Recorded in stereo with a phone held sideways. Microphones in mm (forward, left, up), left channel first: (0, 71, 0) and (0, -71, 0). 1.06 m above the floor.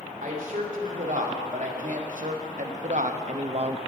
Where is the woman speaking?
70° right (ahead or behind), 3 m; by 3.8 s 45° right (ahead or behind), 0.6 m.